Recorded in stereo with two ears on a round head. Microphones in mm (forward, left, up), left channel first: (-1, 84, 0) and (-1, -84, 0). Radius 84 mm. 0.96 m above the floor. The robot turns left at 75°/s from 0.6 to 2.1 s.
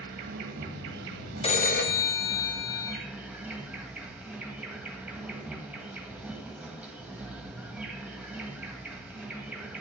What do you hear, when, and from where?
0.0 s an insect: 60° right, 1.5 m; by 9.8 s 170° right, 1.5 m
1.4 s a phone ringing: 150° left, 1.2 m; by 3.0 s 100° left, 1.2 m